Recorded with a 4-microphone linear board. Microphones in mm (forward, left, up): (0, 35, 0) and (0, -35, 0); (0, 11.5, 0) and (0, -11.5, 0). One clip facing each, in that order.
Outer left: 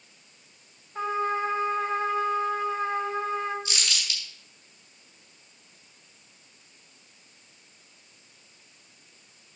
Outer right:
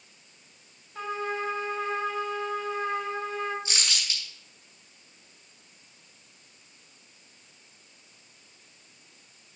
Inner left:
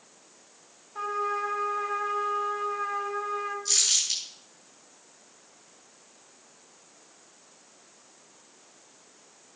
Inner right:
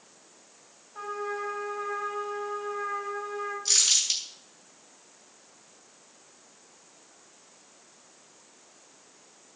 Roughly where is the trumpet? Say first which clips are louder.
Outer left 4 dB, inner left 4 dB; left.